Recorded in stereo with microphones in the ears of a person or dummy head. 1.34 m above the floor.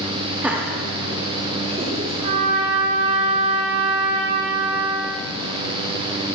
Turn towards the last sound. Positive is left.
turn(degrees=-35)  # may be behind; listen again after turning